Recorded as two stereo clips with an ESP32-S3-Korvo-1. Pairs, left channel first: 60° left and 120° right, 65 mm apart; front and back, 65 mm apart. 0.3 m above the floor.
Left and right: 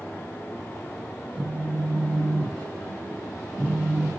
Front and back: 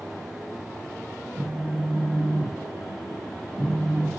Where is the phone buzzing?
5° right, 1.4 m.